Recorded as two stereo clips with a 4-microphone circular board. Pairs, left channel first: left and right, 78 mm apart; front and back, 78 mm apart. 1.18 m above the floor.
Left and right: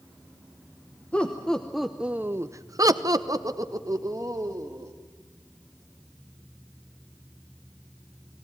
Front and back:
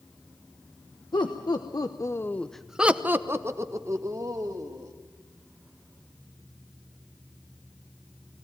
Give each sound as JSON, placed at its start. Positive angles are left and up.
{"t": 1.1, "sound": "laughter", "azimuth_deg": 15, "distance_m": 1.3}